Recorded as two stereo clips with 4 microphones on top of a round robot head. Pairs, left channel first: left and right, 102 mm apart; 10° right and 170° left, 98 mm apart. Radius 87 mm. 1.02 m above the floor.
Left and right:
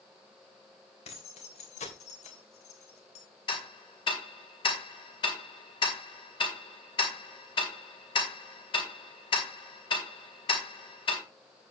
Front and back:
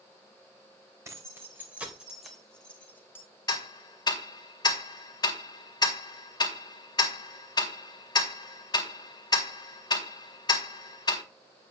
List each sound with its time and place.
1.1 s keys jangling: 110° left, 3.5 m; by 3.2 s 60° left, 3 m
3.5 s ticking: 40° left, 2.5 m